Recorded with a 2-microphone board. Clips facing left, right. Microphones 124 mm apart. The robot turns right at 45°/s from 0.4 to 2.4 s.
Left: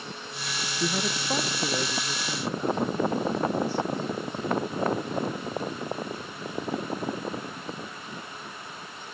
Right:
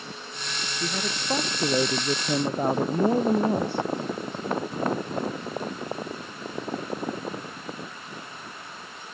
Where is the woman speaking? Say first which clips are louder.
Left 2 dB; 165° left; by 3.9 s 120° right.